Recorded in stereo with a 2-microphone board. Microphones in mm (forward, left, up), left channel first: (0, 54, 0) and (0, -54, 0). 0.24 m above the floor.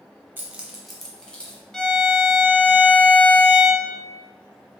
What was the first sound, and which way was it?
Keys jangling, 20° right (ahead or behind).